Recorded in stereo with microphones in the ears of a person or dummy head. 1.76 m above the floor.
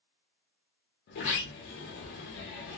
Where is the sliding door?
60° left (ahead or behind), 0.8 m.